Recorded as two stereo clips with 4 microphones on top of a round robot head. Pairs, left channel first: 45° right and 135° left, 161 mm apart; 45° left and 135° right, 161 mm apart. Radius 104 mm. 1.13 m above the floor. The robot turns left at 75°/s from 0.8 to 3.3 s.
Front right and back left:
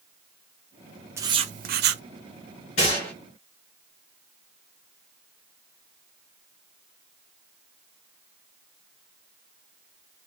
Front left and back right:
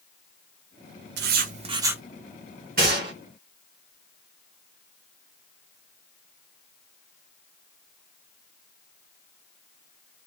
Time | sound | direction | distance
1.2 | writing | 150° right | 0.6 m
2.8 | a gunshot | 100° right | 3 m